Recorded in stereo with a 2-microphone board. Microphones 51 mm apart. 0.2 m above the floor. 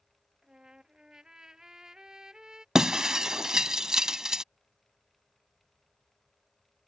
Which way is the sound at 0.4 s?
15° right (ahead or behind).